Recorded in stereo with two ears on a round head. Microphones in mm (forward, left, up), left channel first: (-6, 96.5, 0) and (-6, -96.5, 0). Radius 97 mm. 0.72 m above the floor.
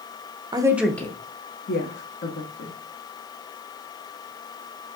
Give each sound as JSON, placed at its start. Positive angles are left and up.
{"t": 0.5, "sound": "a woman speaking", "side_deg": -20, "distance_m": 0.6}